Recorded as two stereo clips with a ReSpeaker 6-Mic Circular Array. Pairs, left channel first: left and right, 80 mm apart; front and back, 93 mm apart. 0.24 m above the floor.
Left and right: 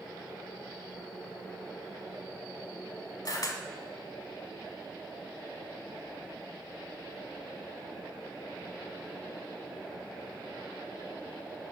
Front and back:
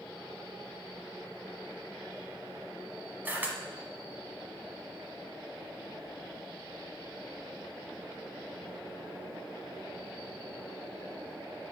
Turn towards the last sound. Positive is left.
turn(degrees=115)